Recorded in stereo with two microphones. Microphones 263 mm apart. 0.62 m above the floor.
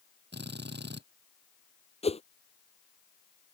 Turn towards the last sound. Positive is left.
turn(degrees=25)  # may be behind; listen again after turning